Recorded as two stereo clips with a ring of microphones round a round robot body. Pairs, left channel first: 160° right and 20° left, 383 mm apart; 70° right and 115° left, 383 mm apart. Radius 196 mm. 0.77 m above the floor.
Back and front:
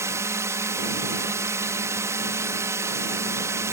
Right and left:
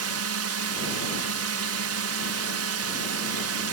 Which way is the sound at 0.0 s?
100° left.